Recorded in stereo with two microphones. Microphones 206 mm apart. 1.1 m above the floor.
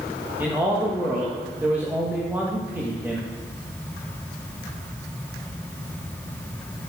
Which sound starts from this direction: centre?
A man speaking, at 0.4 s.